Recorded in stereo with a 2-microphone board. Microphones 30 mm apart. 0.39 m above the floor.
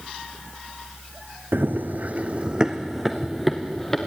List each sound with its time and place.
1.5 s running footsteps: 80° right, 1.6 m; by 4.1 s 5° left (ahead or behind), 3 m